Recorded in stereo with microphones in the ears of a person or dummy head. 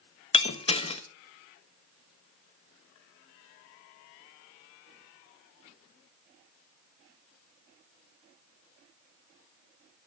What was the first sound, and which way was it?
Breaking glass, 30° left (ahead or behind).